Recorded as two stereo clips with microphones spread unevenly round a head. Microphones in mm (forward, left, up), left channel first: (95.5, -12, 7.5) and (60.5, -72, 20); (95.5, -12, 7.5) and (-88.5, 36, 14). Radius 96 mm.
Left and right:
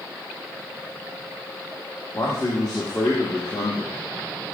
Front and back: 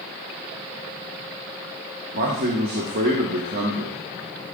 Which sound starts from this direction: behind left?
A man speaking, at 2.1 s.